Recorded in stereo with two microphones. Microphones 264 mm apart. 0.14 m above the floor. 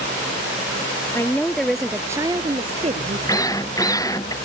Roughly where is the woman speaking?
Centre.